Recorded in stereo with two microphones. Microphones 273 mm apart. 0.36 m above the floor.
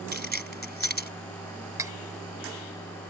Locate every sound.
0.1 s keys jangling: 35° right (ahead or behind)
1.8 s cutlery clinking: 10° right (ahead or behind)